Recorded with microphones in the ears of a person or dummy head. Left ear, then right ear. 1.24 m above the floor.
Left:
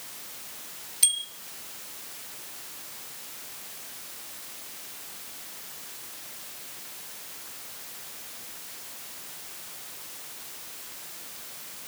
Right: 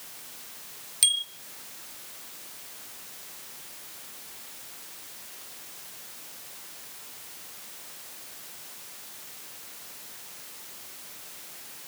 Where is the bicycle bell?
30° right (ahead or behind), 2 m.